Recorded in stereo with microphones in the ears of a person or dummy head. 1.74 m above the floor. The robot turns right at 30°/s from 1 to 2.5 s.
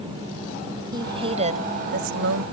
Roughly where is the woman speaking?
Behind right.